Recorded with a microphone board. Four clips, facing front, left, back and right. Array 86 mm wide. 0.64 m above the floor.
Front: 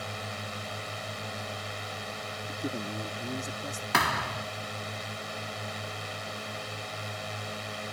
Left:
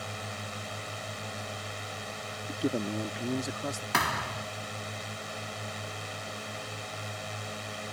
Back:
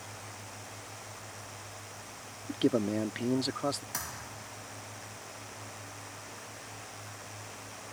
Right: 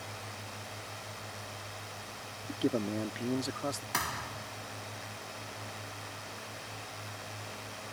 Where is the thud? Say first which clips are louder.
Left 7 dB, front 15 dB; 30° left.